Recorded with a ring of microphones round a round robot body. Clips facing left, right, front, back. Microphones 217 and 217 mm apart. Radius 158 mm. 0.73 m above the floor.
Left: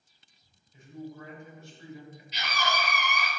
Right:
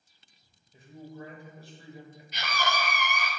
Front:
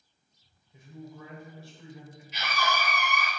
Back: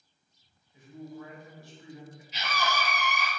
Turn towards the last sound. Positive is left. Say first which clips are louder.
# even, front 1 dB
turn(degrees=-50)